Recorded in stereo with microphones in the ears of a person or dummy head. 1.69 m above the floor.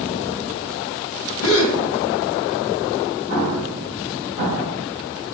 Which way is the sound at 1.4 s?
70° left (ahead or behind).